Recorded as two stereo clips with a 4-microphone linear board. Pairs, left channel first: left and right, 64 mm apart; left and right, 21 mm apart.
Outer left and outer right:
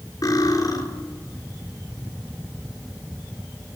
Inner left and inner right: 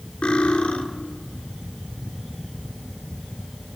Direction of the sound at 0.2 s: 65° left (ahead or behind).